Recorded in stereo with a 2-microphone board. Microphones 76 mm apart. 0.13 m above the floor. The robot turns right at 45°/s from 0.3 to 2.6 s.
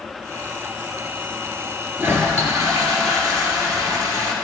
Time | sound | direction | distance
2.0 | a toilet flushing | 30° right (ahead or behind) | 1.6 m